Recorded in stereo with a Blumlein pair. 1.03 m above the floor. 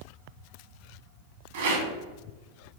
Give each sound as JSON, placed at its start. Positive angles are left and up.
{"t": 1.5, "sound": "a rattle", "azimuth_deg": -55, "distance_m": 1.0}